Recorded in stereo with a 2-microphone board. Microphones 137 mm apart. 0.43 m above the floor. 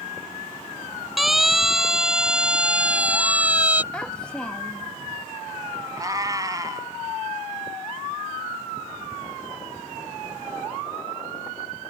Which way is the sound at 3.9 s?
5° left (ahead or behind).